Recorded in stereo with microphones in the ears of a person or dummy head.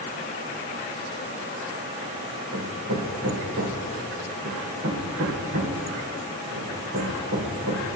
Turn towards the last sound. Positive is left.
turn(degrees=-75)  # may be behind; listen again after turning